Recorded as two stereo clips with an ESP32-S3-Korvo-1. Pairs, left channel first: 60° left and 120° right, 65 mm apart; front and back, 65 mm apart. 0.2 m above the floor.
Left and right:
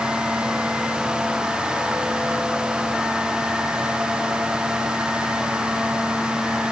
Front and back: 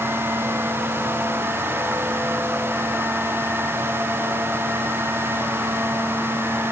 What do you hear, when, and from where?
Only background noise.